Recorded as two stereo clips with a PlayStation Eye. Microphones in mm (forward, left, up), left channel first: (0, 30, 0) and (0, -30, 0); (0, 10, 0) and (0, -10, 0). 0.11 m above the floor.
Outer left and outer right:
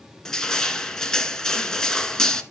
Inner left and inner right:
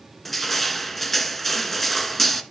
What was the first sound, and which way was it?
Crushing, 10° left (ahead or behind).